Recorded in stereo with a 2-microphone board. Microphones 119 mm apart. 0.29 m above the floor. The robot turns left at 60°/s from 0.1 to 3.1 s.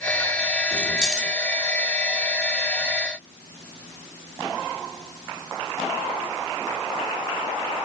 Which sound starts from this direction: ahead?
Keys jangling, at 0.7 s.